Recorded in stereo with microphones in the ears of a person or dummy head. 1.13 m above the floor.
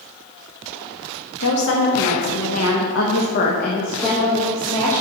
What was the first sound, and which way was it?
A woman speaking, 55° left (ahead or behind).